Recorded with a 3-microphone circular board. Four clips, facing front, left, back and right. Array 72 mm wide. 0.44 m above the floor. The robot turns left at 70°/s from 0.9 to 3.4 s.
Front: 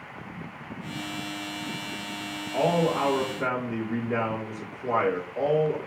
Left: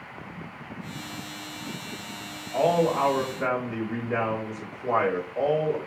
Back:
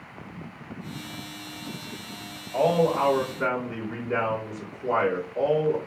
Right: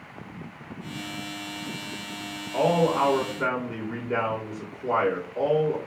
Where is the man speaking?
70° right, 1.8 m; by 5.8 s 135° right, 1.8 m.